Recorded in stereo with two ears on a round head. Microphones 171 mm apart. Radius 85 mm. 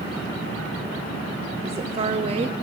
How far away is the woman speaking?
About 0.6 m.